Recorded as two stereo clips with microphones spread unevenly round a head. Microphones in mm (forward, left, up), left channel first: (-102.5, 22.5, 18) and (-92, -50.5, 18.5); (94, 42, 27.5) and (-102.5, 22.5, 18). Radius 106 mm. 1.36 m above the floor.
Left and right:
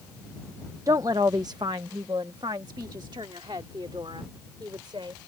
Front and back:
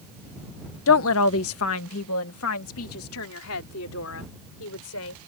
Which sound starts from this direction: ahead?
A woman speaking, at 0.9 s.